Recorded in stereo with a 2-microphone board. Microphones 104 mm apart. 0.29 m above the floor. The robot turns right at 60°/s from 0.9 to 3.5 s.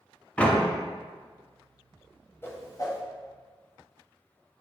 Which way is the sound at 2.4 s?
25° left (ahead or behind).